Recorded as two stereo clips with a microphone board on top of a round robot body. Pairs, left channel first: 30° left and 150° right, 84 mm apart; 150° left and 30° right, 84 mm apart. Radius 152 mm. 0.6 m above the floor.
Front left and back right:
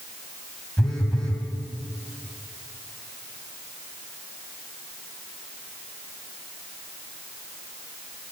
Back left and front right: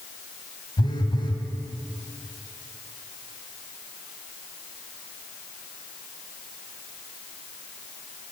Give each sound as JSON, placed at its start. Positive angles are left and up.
{"t": 0.8, "sound": "a phone buzzing", "azimuth_deg": 115, "distance_m": 1.8}